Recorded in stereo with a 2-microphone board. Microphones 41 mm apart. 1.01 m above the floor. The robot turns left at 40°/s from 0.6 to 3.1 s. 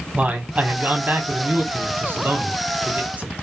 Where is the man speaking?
35° right, 0.9 m; by 3.3 s 135° right, 0.9 m.